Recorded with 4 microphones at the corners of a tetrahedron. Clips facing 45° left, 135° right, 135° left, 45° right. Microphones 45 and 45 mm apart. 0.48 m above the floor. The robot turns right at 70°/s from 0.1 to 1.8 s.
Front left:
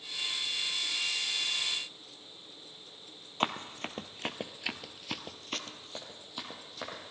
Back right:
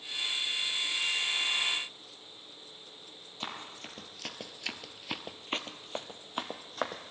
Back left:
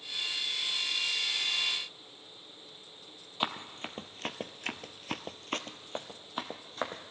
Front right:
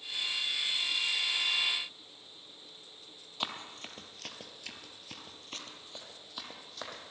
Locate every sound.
3.4 s running footsteps: 65° left, 1.0 m; by 7.1 s 165° right, 1.5 m